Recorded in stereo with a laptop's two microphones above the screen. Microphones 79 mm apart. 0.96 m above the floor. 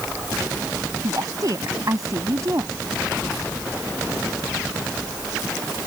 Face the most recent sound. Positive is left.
turn(degrees=-45)  # may be behind; listen again after turning